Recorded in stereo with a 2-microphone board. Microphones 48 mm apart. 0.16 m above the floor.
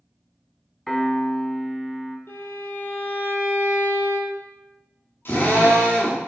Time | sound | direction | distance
0.9 | a piano | 5° left (ahead or behind) | 0.9 m
2.3 | a violin | 60° left (ahead or behind) | 1.7 m
5.2 | a drill | 50° left (ahead or behind) | 2.5 m